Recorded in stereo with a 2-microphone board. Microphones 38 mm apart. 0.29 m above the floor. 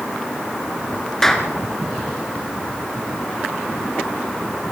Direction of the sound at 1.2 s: 10° left (ahead or behind).